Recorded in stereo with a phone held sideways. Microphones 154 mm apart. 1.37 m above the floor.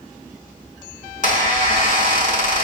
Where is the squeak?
60° left (ahead or behind), 0.8 m.